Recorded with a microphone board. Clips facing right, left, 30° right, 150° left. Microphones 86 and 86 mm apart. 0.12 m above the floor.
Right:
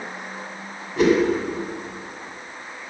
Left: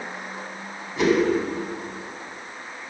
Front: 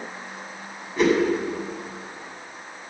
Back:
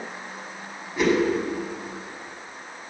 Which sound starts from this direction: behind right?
A whoosh, at 1.0 s.